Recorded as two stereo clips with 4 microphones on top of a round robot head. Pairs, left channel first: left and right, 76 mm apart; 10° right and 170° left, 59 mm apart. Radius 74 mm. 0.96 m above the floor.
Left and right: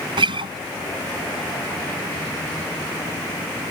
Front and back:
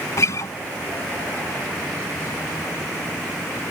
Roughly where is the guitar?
Ahead right.